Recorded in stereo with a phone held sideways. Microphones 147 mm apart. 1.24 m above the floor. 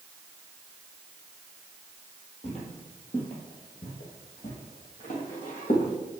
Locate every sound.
2.4 s footsteps: 45° left (ahead or behind), 2.5 m; by 5.9 s 60° left (ahead or behind), 3.5 m